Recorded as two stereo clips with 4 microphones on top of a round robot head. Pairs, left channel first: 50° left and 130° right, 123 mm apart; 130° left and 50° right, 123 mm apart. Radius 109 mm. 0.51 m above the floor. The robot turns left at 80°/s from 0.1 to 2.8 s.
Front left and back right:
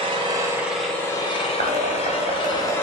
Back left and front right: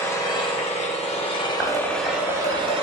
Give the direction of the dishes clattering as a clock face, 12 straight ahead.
4 o'clock.